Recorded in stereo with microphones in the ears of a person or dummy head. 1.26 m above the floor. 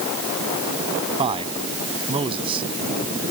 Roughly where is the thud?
I don't hear a thud.